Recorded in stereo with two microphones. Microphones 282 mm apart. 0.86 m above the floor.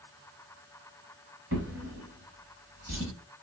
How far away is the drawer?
About 1.4 m.